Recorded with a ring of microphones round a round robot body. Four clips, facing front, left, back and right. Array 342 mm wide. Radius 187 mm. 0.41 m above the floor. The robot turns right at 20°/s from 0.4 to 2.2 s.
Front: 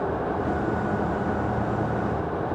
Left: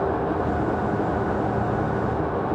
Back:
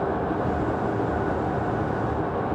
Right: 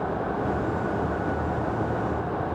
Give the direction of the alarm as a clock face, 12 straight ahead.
I don't hear an alarm.